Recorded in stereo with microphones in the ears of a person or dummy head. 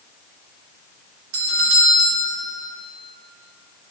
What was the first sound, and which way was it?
A doorbell, 70° right (ahead or behind).